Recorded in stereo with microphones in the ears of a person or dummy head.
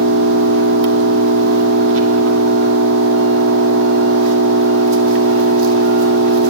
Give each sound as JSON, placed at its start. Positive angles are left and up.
{"t": 0.0, "sound": "an engine running", "side_deg": -70, "distance_m": 2.5}